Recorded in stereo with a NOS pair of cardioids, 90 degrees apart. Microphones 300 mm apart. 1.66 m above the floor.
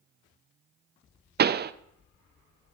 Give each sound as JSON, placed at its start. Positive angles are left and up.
{"t": 1.4, "sound": "a pop", "azimuth_deg": -35, "distance_m": 0.6}